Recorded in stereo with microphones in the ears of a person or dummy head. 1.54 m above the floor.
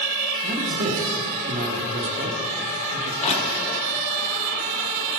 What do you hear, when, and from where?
0.4 s a man speaking: 45° right (ahead or behind), 1.5 m
3.2 s crushing: 40° left (ahead or behind), 1.9 m